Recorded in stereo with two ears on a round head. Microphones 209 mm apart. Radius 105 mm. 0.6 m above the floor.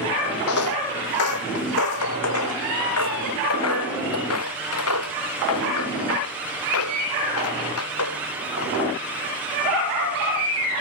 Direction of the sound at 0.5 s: 70° left (ahead or behind).